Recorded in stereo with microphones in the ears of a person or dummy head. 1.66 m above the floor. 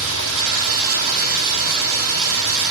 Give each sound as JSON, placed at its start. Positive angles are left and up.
{"t": 0.0, "sound": "running water", "side_deg": -75, "distance_m": 1.1}